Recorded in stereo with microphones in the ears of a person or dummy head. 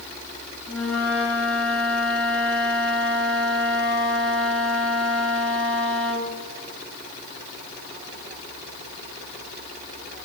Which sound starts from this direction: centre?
A flute, at 0.7 s.